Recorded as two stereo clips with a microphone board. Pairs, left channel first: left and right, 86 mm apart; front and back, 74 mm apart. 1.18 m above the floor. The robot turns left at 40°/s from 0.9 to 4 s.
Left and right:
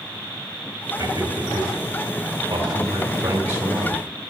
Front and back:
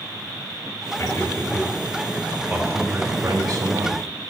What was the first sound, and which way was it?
A man speaking, 55° right.